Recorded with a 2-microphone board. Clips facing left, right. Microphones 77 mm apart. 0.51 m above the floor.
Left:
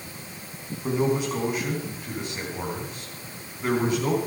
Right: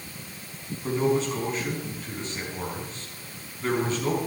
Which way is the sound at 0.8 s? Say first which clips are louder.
Even; 10° left (ahead or behind).